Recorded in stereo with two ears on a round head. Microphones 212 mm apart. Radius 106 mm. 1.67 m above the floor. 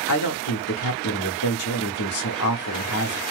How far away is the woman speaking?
About 0.8 m.